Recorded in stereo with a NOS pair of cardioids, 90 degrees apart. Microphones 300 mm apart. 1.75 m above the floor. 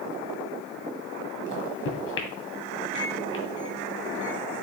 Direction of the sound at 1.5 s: 45° left.